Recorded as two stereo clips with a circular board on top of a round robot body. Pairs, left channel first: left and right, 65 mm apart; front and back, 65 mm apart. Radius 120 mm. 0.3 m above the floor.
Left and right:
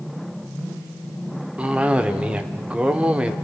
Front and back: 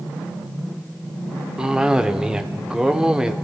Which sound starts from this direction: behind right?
A cough, at 1.6 s.